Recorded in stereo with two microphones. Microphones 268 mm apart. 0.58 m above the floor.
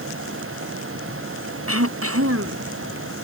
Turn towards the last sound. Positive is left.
turn(degrees=-60)  # may be behind; listen again after turning